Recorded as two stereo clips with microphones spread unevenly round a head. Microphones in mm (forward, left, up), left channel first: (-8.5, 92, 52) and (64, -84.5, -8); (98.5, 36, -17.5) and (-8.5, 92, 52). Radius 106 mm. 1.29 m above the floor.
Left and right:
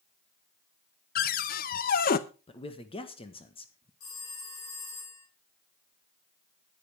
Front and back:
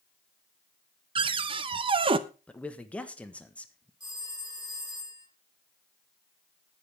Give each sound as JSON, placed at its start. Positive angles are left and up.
{"t": 1.1, "sound": "a cupboard door", "azimuth_deg": 145, "distance_m": 0.7}
{"t": 2.5, "sound": "a man speaking", "azimuth_deg": 45, "distance_m": 1.4}
{"t": 4.0, "sound": "a phone ringing", "azimuth_deg": 100, "distance_m": 6.0}